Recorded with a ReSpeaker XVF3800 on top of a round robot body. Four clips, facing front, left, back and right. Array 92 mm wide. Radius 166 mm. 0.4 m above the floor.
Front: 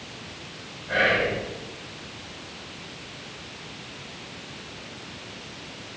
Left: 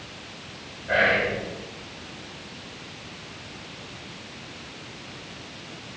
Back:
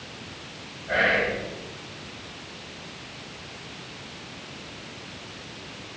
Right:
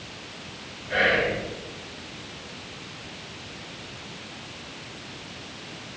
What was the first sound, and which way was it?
Whispering, 105° left.